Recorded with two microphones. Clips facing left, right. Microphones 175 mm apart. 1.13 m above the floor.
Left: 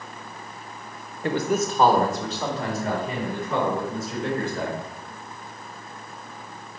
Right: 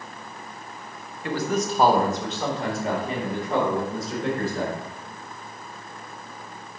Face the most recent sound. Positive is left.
turn(degrees=-35)  # may be behind; listen again after turning